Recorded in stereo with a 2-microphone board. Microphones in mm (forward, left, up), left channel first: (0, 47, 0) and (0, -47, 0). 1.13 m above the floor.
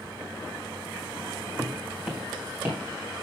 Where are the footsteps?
Centre (ahead or behind), 2 m; by 2.8 s 25° right (ahead or behind), 2.5 m.